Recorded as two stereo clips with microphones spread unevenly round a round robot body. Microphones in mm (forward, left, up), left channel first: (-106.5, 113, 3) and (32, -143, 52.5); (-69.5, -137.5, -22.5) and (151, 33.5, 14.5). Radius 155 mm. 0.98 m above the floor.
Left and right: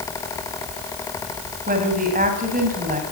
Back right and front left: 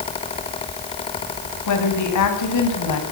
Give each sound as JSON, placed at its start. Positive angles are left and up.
{"t": 1.7, "sound": "a woman speaking", "azimuth_deg": -125, "distance_m": 7.0}